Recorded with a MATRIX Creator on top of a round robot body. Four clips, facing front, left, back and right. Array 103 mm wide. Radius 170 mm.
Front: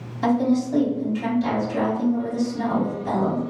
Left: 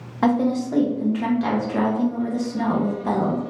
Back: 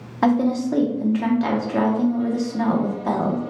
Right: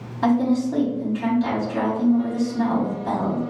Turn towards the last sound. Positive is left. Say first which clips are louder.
# even, back 1 dB
turn(degrees=155)